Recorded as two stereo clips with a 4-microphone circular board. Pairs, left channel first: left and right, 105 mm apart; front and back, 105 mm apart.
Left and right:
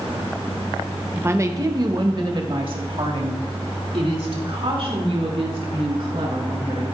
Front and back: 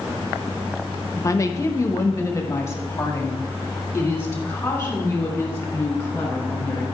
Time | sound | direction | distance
1.2 | a woman speaking | 30° right | 0.7 m